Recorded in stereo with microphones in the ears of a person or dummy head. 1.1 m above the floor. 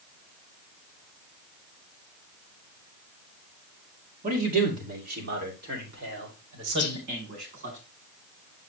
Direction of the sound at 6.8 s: 50° left (ahead or behind).